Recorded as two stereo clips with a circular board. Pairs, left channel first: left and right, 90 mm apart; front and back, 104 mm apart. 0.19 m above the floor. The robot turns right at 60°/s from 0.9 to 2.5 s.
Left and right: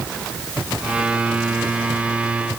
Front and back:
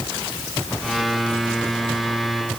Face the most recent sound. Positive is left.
No sound to turn to.